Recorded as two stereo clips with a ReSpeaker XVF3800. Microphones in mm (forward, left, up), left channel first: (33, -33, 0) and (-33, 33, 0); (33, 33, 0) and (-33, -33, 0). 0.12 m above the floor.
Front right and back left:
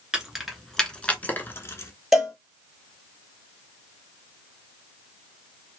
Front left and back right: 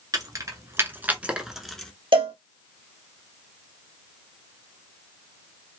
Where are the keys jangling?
145° right, 1.1 m; by 1.9 s 35° right, 0.9 m.